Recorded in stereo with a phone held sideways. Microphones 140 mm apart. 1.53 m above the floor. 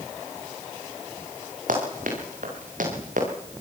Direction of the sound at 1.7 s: 70° right (ahead or behind).